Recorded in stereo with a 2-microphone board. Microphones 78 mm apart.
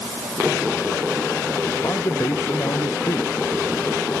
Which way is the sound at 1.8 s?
50° left (ahead or behind).